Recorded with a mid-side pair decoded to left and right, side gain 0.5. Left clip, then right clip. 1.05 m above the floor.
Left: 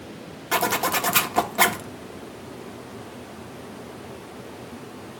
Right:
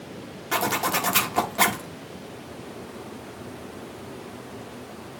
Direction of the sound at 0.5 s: 15° left.